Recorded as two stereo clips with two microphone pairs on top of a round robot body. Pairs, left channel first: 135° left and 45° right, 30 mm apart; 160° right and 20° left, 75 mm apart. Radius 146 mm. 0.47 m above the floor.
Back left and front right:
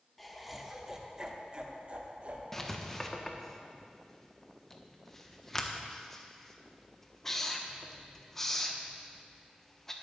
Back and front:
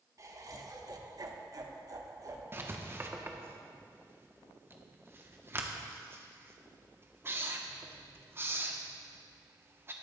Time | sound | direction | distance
0.2 | laughter | 55° left | 1.5 m
2.5 | writing | 70° left | 1.2 m